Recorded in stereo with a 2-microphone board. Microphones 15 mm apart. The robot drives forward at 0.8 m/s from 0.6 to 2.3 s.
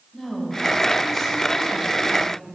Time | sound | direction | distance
0.1 | a woman speaking | 10° left (ahead or behind) | 1.9 m